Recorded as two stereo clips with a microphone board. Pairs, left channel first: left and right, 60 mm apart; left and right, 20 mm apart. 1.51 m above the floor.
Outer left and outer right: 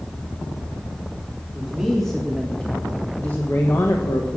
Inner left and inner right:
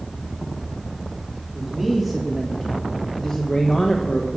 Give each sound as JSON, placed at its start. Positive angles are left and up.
{"t": 1.5, "sound": "a man speaking", "side_deg": -5, "distance_m": 2.5}